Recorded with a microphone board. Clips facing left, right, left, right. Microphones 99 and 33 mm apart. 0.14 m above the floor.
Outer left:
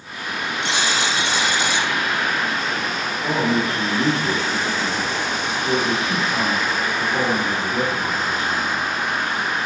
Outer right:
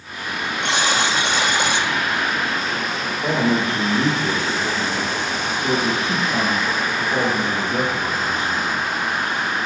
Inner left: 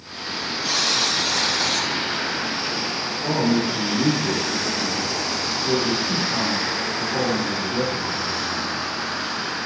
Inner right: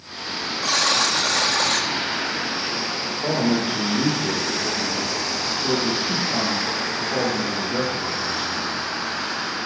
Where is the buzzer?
60° right (ahead or behind), 1.8 m.